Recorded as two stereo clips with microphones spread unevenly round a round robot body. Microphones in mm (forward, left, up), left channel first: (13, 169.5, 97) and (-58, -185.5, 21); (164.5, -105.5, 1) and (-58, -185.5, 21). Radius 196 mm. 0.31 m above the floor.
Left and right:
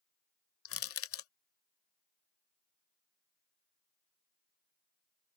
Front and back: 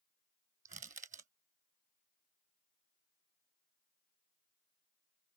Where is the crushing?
135° left.